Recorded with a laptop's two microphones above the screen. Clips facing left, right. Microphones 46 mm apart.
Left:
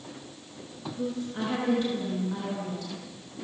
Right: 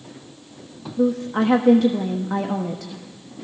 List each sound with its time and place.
1.0 s a woman speaking: 80° right, 1.5 m